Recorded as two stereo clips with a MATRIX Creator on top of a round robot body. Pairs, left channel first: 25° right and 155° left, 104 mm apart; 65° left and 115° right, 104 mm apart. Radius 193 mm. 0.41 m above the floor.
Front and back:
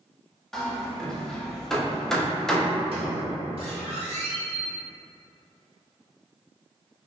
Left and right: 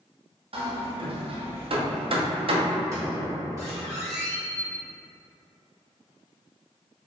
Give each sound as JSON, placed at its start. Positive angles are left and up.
{"t": 0.5, "sound": "hammering", "azimuth_deg": -110, "distance_m": 0.7}
{"t": 2.9, "sound": "a squeak", "azimuth_deg": -170, "distance_m": 0.9}